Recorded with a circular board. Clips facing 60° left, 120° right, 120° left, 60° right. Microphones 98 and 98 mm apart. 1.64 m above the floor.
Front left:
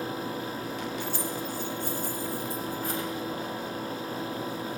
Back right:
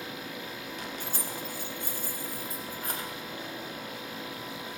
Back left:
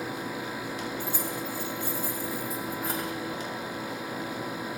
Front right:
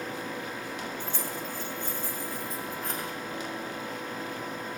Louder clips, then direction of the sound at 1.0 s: Front left 5 dB, back left 2 dB; 160° right.